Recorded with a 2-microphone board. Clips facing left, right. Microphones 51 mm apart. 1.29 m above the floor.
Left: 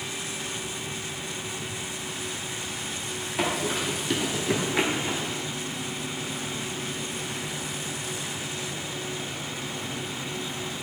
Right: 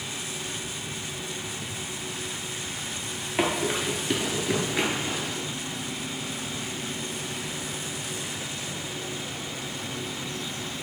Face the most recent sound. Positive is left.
turn(degrees=35)  # may be behind; listen again after turning